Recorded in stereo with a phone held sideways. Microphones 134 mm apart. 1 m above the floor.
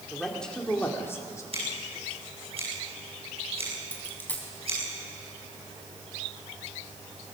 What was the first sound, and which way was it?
A man speaking, centre (ahead or behind).